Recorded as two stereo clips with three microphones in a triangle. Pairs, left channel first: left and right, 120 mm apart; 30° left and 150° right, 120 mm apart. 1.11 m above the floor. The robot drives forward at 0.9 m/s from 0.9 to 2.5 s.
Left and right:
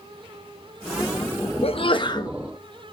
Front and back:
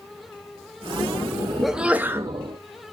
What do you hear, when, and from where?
1.6 s a sneeze: 120° left, 0.9 m; by 2.4 s 145° left, 1.3 m